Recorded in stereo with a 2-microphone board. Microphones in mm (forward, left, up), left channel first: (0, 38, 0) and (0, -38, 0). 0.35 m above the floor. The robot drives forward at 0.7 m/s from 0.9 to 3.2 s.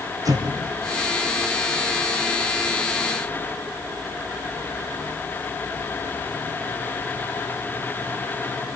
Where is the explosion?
50° right (ahead or behind), 3.5 m.